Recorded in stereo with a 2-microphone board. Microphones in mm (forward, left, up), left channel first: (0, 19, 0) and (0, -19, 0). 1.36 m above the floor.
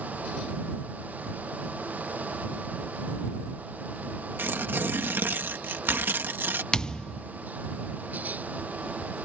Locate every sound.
4.4 s tearing paper: 65° right (ahead or behind)
6.7 s a thud: 20° left (ahead or behind)